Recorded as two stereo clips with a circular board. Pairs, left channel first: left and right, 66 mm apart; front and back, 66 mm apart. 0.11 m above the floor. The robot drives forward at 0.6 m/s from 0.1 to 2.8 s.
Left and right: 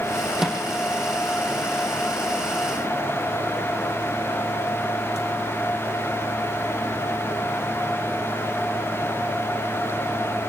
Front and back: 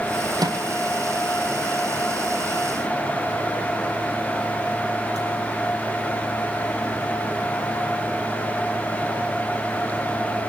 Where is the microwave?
170° right, 4.5 m; by 5.3 s 175° right, 6 m.